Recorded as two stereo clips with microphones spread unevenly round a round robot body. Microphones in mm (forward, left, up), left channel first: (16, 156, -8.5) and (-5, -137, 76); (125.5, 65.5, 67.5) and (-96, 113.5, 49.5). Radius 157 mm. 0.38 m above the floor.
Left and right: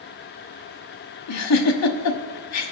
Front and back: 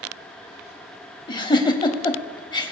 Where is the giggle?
60° left, 1.1 m.